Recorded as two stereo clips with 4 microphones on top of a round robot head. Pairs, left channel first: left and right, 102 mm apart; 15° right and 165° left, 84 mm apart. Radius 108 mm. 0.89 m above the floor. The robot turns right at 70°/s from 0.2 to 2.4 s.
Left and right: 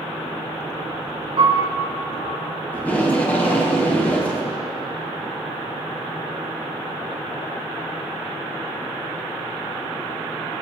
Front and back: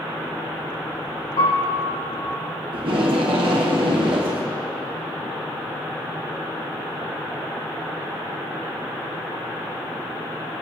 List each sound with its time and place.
1.4 s a piano: 45° right, 2 m; by 1.7 s 20° right, 2 m
2.7 s tape being pulled: 165° left, 1.8 m